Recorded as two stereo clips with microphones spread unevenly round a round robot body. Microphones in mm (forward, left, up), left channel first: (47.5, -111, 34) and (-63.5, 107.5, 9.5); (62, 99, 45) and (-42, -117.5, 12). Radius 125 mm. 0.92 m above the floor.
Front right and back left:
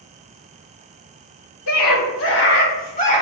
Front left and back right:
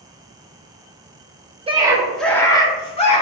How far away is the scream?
About 1.4 m.